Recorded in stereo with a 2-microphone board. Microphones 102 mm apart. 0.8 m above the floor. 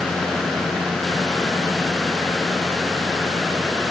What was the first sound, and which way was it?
Only background noise.